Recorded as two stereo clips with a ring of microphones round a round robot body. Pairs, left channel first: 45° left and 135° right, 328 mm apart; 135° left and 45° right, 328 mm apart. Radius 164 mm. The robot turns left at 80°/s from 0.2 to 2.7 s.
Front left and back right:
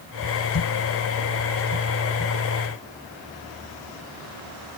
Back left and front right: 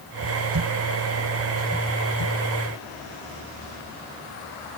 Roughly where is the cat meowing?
I don't hear a cat meowing.